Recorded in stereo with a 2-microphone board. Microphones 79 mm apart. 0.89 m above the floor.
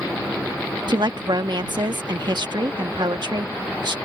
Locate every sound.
0.9 s a woman speaking: 75° right (ahead or behind)